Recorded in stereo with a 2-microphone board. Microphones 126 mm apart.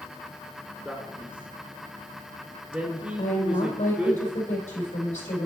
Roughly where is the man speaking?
Centre.